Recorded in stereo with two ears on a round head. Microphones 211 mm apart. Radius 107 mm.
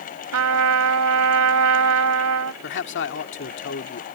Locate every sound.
0.3 s a trumpet: 75° right (ahead or behind)
2.6 s a man speaking: 55° left (ahead or behind)